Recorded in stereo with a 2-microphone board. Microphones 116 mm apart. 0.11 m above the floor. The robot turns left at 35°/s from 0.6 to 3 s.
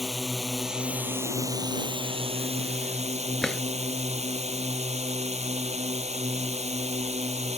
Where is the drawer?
5° left (ahead or behind).